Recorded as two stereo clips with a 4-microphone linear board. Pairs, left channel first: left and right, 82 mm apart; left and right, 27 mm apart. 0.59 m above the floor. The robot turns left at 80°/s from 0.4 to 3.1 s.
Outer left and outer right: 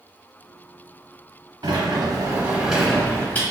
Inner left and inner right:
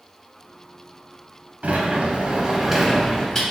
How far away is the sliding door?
About 0.7 m.